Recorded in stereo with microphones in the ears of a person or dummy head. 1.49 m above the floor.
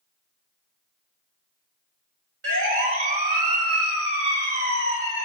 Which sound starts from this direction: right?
A siren, at 2.4 s.